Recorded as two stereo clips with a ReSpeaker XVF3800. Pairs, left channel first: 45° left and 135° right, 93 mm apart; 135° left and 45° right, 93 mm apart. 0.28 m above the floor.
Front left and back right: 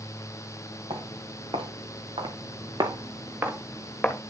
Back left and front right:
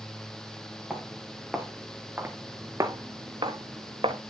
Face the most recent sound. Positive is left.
turn(degrees=-30)